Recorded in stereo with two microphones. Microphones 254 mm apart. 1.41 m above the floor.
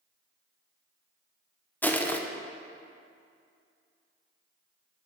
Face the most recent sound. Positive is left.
turn(degrees=5)  # may be behind; listen again after turning